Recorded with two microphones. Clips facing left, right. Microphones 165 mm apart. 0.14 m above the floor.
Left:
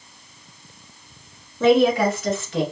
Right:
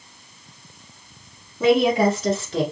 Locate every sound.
1.6 s a woman speaking: 10° right (ahead or behind), 1.0 m; by 2.6 s 40° right (ahead or behind), 1.6 m